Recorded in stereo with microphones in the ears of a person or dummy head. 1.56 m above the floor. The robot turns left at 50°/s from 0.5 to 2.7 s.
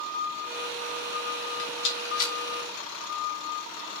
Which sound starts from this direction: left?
A rattle, at 1.6 s.